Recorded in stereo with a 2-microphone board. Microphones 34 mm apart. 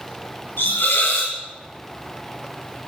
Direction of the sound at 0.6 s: 70° left (ahead or behind).